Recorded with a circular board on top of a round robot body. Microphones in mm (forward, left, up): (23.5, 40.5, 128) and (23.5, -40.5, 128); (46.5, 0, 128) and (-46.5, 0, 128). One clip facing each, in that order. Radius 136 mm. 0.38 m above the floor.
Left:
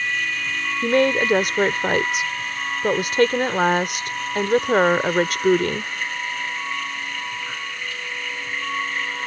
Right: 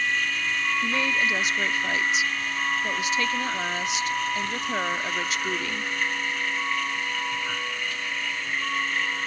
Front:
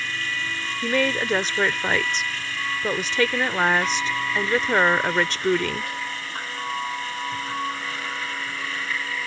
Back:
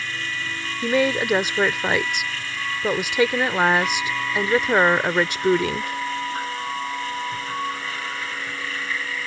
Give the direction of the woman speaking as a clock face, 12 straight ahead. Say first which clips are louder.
Left 12 dB, back 3 dB; 9 o'clock.